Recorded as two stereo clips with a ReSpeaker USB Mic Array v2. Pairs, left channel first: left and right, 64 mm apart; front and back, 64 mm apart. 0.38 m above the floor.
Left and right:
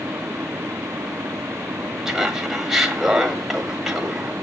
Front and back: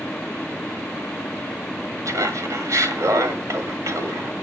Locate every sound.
2.0 s laughter: 170° right, 1.7 m